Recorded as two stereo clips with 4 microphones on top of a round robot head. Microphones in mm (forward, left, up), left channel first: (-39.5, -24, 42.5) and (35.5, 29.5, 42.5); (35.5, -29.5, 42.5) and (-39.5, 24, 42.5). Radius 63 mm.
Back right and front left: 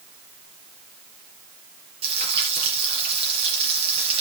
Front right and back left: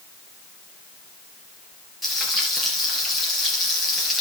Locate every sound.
2.0 s frying: 55° left, 4.5 m